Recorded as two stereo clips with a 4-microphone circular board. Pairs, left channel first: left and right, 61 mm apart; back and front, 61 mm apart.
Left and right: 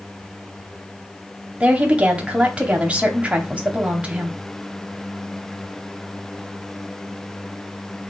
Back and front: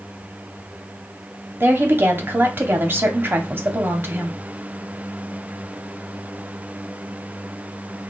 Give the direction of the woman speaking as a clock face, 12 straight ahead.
1 o'clock.